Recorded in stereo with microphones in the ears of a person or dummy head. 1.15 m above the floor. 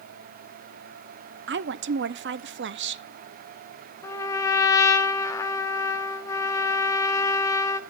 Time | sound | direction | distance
1.5 | a woman speaking | 55° right (ahead or behind) | 0.5 m
4.0 | a trumpet | 15° left (ahead or behind) | 0.9 m